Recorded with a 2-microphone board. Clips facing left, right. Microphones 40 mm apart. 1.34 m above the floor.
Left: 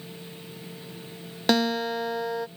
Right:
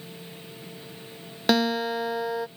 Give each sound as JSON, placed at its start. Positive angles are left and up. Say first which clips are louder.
{"t": 1.5, "sound": "a guitar", "louder": "right 1 dB", "side_deg": -5}